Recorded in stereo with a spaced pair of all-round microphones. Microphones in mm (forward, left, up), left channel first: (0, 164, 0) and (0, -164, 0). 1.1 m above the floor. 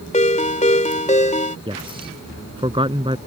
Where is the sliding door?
No sliding door in this recording.